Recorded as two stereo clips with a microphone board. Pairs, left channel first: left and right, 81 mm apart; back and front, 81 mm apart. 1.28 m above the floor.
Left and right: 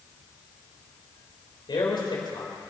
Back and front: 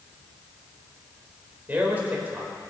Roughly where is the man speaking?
Left.